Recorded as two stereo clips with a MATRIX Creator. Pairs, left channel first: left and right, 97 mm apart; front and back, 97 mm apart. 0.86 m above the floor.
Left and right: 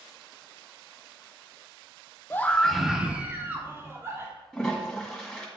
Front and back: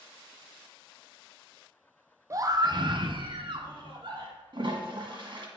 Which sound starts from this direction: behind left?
A scream, at 2.3 s.